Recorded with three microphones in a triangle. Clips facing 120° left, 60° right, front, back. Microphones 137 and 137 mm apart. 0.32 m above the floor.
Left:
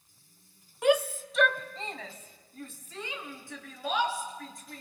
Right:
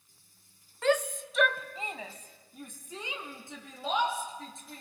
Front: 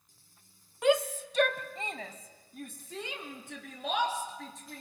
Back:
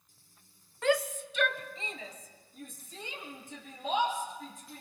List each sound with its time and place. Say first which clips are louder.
0.8 s a shout: left 3 dB, front 2 dB; 60° left, 1.1 m; by 4.8 s 10° left, 5 m